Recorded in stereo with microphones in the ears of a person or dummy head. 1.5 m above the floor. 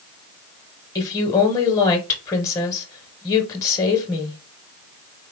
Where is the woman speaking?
20° left (ahead or behind), 1.1 m.